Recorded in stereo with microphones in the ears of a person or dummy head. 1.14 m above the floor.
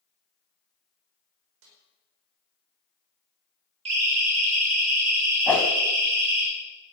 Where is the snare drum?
70° right (ahead or behind), 5 m.